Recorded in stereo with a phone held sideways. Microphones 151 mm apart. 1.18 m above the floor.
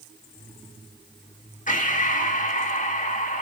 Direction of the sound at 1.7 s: 60° left (ahead or behind).